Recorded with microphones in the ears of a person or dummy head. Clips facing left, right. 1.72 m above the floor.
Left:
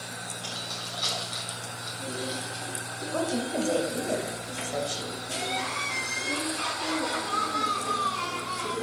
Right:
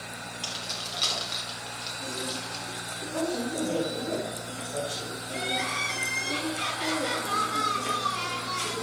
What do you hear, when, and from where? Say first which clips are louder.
0.4 s keys jangling: even; 40° right (ahead or behind), 2.5 m
3.1 s a woman speaking: left 1 dB; 55° left (ahead or behind), 3 m
5.3 s crying: right 2 dB; 20° right (ahead or behind), 4.5 m